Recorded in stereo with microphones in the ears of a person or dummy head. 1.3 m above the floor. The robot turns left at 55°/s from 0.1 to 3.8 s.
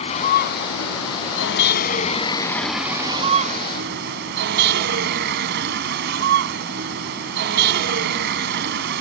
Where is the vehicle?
145° left; by 9.0 s 60° right.